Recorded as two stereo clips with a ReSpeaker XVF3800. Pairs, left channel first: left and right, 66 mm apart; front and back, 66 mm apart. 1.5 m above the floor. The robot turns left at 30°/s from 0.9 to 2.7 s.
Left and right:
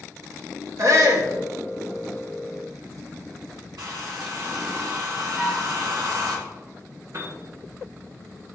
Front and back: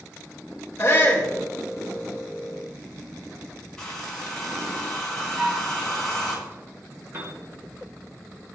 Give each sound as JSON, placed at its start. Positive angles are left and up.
{"t": 0.8, "sound": "a shout", "azimuth_deg": -50, "distance_m": 1.5}
{"t": 3.8, "sound": "a hair dryer", "azimuth_deg": -80, "distance_m": 1.8}
{"t": 5.4, "sound": "a flute", "azimuth_deg": 170, "distance_m": 1.1}
{"t": 7.1, "sound": "a piano", "azimuth_deg": -130, "distance_m": 1.6}